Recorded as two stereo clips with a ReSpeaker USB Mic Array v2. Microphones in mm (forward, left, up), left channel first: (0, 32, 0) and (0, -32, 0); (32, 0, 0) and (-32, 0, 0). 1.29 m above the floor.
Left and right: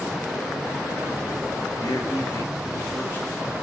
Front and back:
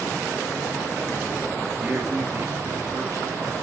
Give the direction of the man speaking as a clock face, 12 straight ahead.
8 o'clock.